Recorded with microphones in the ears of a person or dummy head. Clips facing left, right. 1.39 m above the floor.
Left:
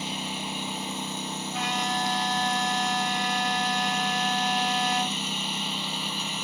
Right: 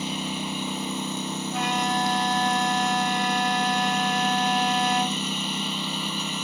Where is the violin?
45° right (ahead or behind).